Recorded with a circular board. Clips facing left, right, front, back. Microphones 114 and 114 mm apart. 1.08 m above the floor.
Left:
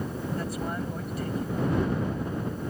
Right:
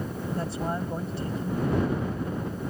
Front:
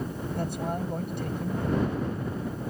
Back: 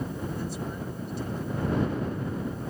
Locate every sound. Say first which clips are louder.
0.4 s a man speaking: right 4 dB, front 3 dB; 30° right